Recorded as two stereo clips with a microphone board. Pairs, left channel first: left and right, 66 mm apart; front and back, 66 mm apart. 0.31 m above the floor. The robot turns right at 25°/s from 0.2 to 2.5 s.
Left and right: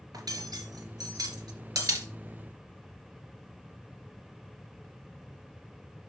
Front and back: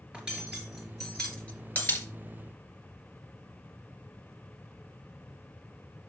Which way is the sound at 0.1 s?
105° right.